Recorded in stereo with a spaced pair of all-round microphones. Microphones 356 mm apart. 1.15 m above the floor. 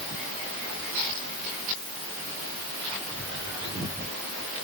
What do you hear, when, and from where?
Only background noise.